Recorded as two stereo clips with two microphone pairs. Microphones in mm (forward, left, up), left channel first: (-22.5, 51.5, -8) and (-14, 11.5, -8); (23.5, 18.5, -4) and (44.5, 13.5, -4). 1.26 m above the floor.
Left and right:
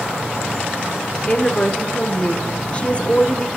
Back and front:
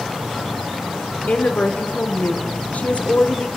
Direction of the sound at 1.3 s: 160° left.